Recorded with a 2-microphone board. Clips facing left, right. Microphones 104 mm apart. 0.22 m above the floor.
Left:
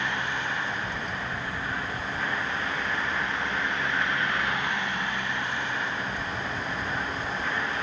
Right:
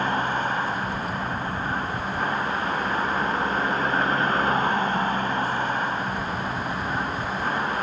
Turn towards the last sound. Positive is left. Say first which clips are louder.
# right 6 dB
turn(degrees=-40)  # may be behind; listen again after turning